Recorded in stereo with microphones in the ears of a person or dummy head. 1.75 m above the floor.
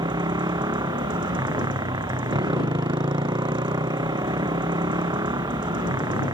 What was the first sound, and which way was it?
A motorcycle, 25° right (ahead or behind).